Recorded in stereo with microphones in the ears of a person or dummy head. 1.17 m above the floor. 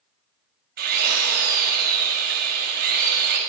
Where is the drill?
65° right (ahead or behind), 1.8 m.